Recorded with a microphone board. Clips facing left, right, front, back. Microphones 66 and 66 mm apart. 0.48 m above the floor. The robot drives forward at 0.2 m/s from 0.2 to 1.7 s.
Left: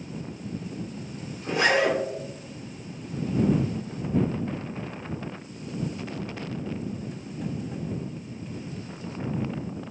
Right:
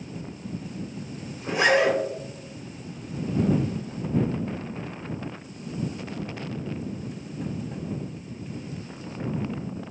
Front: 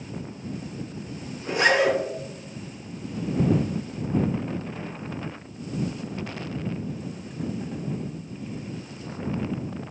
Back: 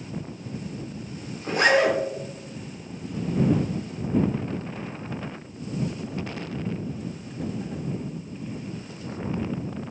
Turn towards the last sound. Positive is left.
turn(degrees=-160)